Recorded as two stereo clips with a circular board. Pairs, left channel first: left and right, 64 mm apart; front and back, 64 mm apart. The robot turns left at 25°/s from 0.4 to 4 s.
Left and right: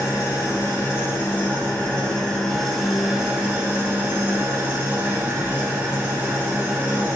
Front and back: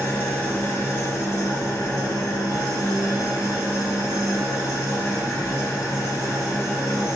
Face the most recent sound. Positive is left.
turn(degrees=-30)